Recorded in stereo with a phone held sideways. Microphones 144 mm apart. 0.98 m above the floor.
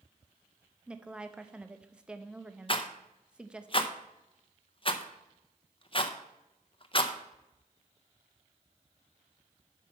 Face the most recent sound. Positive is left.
turn(degrees=40)  # may be behind; listen again after turning